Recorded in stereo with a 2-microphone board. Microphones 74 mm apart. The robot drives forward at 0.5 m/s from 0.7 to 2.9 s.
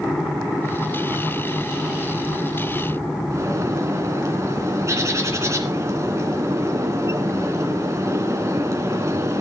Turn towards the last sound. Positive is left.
turn(degrees=-40)  # may be behind; listen again after turning